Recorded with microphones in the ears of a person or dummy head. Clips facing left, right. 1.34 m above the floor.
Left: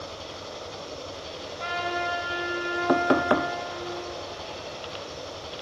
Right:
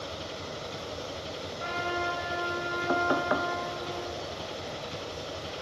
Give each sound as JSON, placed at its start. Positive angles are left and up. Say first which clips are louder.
{"t": 0.0, "sound": "an engine running", "louder": "even", "side_deg": -25, "distance_m": 3.5}
{"t": 1.6, "sound": "a trumpet", "louder": "left 3 dB", "side_deg": 65, "distance_m": 5.5}
{"t": 2.9, "sound": "knocking", "louder": "left 6 dB", "side_deg": 60, "distance_m": 0.5}